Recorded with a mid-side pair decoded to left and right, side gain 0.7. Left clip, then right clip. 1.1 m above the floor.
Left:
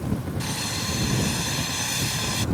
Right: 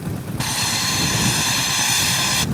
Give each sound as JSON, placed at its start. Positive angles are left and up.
{"t": 0.4, "sound": "sawing", "azimuth_deg": -35}